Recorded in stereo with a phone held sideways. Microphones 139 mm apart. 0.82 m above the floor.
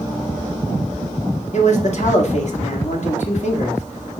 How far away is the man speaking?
About 1.5 m.